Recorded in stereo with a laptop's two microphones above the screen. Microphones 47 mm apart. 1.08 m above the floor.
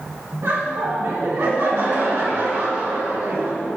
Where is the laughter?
70° right (ahead or behind), 2 m.